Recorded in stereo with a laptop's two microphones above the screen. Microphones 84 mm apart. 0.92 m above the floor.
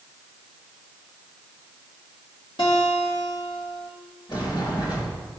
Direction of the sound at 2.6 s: 75° left (ahead or behind).